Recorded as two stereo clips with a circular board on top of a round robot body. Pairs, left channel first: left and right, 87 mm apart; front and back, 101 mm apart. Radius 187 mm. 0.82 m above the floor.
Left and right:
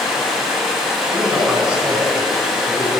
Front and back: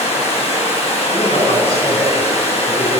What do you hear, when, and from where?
0.0 s running water: 5° right, 7 m
1.1 s a man speaking: 15° right, 10 m